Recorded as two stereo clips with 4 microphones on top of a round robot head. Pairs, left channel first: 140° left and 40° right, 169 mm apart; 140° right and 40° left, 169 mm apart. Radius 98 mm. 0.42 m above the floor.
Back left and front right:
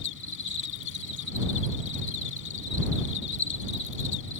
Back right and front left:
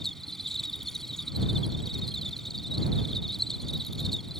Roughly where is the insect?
Behind left.